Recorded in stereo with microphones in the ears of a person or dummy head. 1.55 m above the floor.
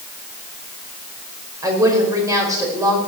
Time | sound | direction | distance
1.6 | a woman speaking | 15° right (ahead or behind) | 5.5 m